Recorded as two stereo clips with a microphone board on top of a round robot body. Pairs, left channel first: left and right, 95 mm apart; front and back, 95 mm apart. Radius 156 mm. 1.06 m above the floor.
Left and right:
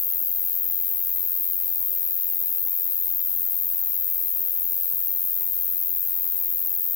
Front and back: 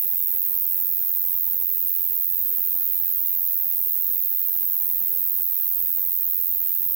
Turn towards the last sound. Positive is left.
turn(degrees=135)